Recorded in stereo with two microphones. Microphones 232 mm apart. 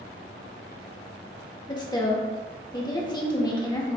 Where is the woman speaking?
20° left (ahead or behind), 0.7 m.